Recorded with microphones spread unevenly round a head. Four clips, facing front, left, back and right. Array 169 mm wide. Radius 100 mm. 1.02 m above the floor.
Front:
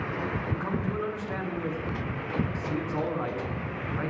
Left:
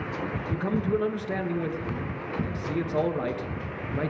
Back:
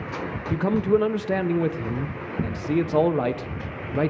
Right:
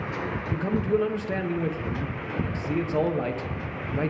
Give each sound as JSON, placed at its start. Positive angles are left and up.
{"t": 0.5, "sound": "a man speaking", "azimuth_deg": -170, "distance_m": 0.8}